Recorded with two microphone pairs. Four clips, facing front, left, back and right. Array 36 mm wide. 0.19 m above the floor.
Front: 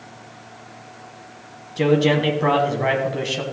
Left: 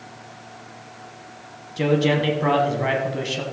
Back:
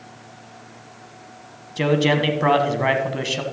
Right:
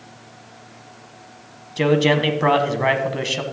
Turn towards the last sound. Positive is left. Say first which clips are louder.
# right 3 dB, front 1 dB
turn(degrees=-120)